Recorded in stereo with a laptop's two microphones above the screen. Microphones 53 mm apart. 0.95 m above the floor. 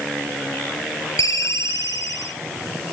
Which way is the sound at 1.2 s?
85° left.